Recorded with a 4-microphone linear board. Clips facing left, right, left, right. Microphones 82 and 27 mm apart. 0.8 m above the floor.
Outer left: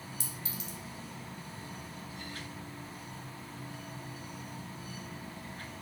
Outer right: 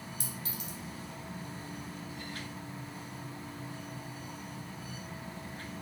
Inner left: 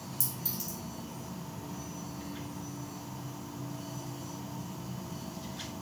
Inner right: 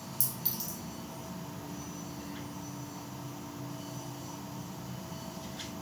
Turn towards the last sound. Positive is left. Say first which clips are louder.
# outer right 1 dB, even
turn(degrees=-50)  # may be behind; listen again after turning